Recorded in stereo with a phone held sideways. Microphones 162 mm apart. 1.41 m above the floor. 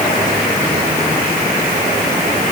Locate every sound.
Only background noise.